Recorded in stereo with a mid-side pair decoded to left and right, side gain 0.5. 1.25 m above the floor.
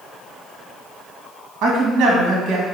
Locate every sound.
1.6 s a woman speaking: 60° right, 2 m